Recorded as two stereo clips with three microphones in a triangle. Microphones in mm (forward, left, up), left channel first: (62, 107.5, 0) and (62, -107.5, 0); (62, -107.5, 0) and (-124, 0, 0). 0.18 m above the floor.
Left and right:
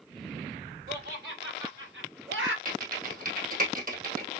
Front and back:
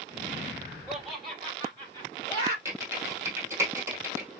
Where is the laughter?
125° right, 4.5 m; by 2.5 s 100° right, 3.5 m.